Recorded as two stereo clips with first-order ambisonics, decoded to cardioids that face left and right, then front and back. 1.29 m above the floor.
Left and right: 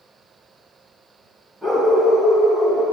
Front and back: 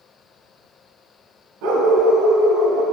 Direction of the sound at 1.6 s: 170° right.